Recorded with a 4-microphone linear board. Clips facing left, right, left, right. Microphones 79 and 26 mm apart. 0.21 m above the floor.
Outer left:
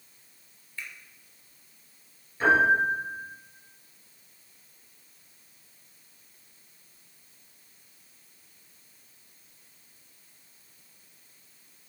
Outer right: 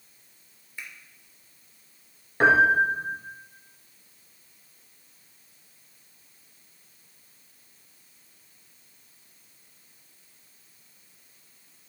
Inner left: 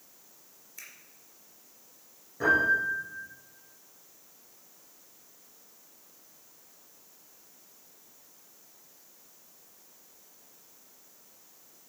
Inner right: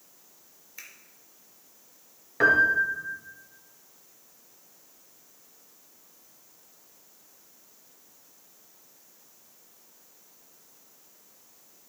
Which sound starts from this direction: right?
A piano, at 2.4 s.